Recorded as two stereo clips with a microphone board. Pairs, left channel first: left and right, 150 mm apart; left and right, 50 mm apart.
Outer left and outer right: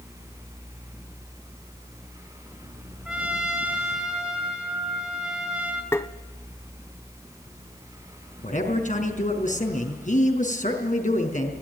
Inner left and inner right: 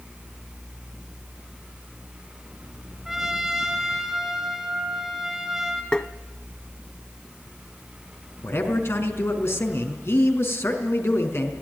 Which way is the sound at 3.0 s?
5° right (ahead or behind).